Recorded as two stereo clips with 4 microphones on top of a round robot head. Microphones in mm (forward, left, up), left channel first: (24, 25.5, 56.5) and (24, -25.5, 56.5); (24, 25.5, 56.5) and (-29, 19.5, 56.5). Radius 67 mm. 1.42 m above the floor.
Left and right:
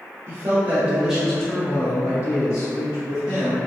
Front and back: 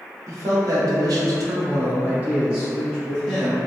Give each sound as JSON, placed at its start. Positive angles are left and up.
{"t": 0.3, "sound": "a man speaking", "azimuth_deg": -145, "distance_m": 0.8}